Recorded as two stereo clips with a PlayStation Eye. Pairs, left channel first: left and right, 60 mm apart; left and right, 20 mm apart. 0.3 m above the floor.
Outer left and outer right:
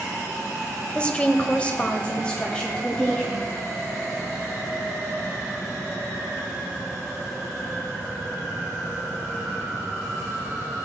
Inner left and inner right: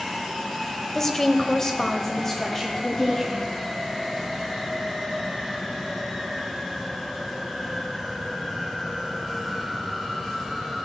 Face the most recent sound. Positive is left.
turn(degrees=15)  # may be behind; listen again after turning